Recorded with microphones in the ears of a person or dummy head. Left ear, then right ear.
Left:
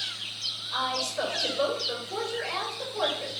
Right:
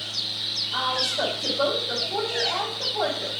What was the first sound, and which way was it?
A woman speaking, 50° left (ahead or behind).